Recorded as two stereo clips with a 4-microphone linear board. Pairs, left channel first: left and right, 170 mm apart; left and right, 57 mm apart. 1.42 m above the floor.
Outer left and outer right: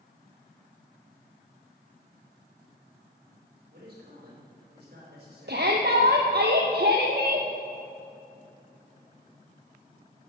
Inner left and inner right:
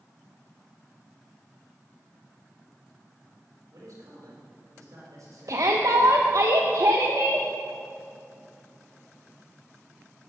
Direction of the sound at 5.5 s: 70° right (ahead or behind).